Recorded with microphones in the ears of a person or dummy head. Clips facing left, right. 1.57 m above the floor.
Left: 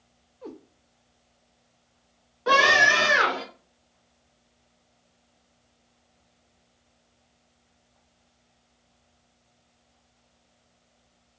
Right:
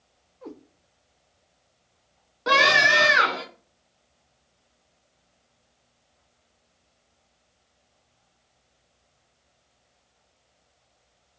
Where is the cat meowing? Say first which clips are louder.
Even; 25° right (ahead or behind), 1.1 m.